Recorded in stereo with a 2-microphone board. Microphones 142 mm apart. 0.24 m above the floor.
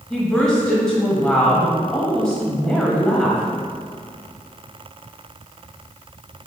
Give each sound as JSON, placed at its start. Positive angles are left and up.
{"t": 0.1, "sound": "a woman speaking", "side_deg": 5, "distance_m": 0.9}